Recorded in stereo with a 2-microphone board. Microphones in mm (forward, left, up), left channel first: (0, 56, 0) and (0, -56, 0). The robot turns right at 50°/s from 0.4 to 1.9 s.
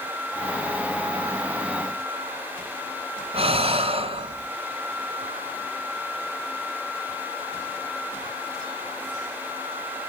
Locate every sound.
3.3 s breathing: 65° right (ahead or behind), 1.5 m